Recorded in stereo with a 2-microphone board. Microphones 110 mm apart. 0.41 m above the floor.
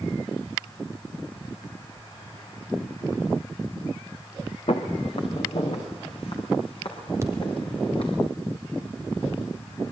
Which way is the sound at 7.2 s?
25° right (ahead or behind).